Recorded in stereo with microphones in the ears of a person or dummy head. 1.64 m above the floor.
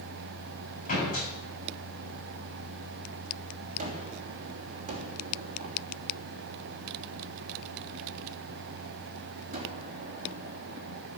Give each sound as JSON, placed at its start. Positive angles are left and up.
{"t": 0.9, "sound": "a door slam", "side_deg": 45, "distance_m": 8.5}
{"t": 3.8, "sound": "a gunshot", "side_deg": -35, "distance_m": 3.0}